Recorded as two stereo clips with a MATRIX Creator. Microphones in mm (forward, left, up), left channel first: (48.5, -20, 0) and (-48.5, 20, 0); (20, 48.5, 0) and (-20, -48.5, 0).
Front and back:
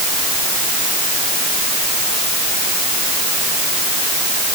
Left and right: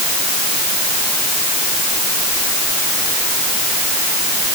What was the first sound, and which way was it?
Only background noise.